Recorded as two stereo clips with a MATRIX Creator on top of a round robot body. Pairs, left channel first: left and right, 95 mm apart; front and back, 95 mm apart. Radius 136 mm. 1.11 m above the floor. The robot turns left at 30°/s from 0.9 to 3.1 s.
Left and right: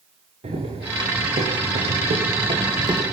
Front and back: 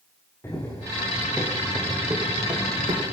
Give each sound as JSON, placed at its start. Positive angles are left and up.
{"t": 0.4, "sound": "running footsteps", "azimuth_deg": -70, "distance_m": 5.5}